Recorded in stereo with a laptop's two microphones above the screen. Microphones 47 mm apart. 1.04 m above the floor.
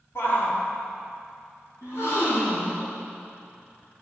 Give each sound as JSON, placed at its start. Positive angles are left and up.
{"t": 0.1, "sound": "a shout", "side_deg": 60, "distance_m": 2.5}
{"t": 1.8, "sound": "a gasp", "side_deg": 80, "distance_m": 4.0}